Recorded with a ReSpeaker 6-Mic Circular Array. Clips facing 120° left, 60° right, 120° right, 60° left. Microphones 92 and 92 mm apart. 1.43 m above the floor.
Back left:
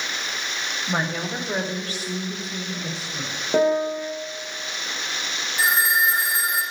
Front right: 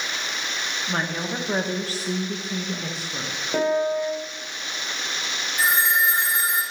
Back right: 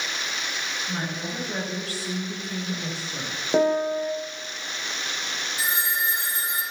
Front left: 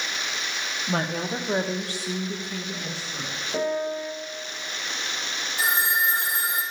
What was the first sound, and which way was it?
A woman speaking, 45° left.